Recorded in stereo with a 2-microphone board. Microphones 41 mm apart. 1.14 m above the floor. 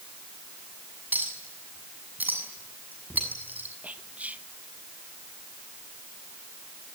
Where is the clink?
50° right (ahead or behind), 6.5 m.